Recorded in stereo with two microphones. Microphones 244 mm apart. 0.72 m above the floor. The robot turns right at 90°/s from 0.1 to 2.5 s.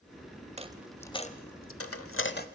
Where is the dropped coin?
30° right (ahead or behind), 0.8 m; by 2.5 s 35° left (ahead or behind), 0.8 m.